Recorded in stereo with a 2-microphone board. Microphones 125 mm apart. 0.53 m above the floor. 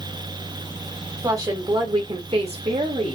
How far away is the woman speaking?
About 1.5 m.